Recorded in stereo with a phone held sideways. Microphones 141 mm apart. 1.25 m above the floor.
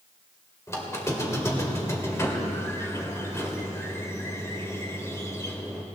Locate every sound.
0.7 s a squeak: 20° left (ahead or behind), 1.9 m